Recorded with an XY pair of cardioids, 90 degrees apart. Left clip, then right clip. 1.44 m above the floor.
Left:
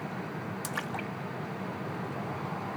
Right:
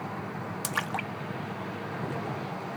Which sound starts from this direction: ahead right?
A splash, at 0.6 s.